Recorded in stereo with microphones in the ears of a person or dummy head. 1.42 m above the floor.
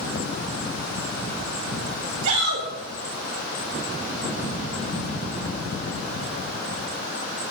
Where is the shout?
80° right, 5.5 m.